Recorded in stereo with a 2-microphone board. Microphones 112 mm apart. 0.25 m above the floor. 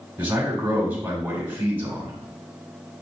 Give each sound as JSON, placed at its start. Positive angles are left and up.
{"t": 0.2, "sound": "a man speaking", "side_deg": -20, "distance_m": 1.3}